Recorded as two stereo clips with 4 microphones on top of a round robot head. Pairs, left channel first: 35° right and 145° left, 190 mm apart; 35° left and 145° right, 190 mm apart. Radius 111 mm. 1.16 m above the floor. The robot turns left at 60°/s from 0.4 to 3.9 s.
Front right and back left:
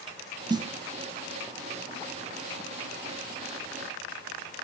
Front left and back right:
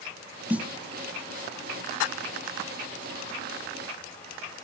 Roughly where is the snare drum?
Behind left.